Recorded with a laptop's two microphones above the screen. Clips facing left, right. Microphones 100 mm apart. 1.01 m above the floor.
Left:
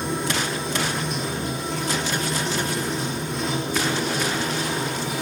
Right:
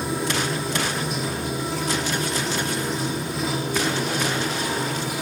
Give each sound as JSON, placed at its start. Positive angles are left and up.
{"t": 0.0, "sound": "running water", "side_deg": -5, "distance_m": 1.0}